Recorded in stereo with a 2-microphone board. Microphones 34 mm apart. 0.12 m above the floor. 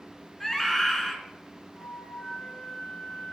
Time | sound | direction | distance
0.4 | a scream | 10° left (ahead or behind) | 1.1 m
1.7 | a flute | 20° left (ahead or behind) | 1.9 m